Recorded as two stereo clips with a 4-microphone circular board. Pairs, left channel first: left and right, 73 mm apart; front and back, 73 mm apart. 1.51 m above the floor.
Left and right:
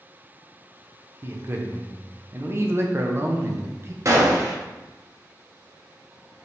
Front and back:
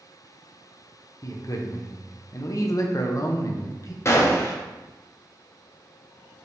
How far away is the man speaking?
About 0.6 m.